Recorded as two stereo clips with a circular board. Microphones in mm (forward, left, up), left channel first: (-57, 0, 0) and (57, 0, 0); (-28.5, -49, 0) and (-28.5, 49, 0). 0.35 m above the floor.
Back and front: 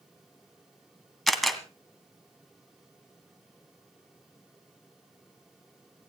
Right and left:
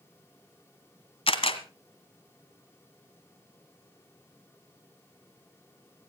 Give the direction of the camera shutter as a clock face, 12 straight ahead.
3 o'clock.